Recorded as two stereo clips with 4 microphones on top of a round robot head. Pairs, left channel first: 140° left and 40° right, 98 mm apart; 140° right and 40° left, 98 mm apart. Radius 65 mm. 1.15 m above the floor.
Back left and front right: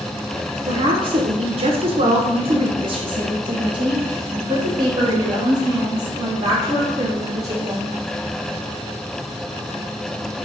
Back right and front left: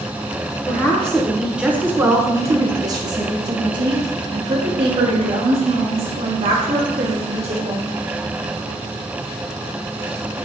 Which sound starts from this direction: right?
A woman speaking, at 0.7 s.